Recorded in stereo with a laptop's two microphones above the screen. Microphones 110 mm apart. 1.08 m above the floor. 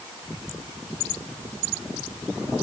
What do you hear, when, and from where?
Only background noise.